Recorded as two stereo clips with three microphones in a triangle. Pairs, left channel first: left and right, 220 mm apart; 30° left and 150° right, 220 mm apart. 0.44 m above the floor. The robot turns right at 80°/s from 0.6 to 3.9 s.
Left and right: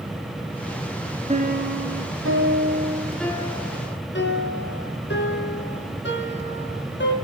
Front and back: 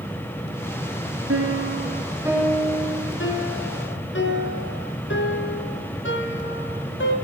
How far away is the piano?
About 5 m.